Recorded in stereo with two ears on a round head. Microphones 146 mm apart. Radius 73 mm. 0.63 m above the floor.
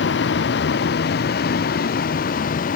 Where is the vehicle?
70° left (ahead or behind); by 2.8 s 50° left (ahead or behind).